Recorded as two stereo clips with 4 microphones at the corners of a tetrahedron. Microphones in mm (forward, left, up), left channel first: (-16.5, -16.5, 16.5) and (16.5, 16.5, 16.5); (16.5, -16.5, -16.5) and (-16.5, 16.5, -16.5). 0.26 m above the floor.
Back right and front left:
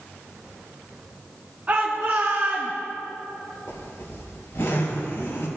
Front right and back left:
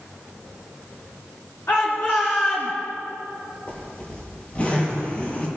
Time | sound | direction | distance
1.7 | a shout | 10° right | 2.5 m
3.7 | a zipper | 110° right | 4.5 m